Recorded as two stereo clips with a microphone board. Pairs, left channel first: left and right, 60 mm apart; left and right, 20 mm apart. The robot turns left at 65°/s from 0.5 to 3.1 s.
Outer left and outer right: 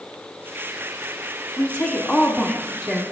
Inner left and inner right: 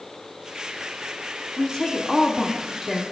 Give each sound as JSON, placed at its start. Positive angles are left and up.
{"t": 1.6, "sound": "a woman speaking", "azimuth_deg": 70, "distance_m": 1.1}